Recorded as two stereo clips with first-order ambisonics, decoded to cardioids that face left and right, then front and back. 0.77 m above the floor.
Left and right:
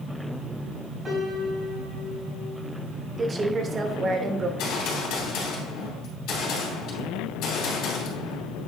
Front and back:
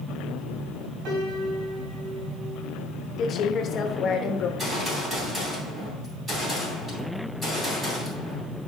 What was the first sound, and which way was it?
A piano, 165° right.